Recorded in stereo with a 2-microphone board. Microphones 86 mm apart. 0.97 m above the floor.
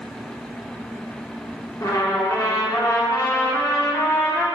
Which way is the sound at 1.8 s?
40° left (ahead or behind).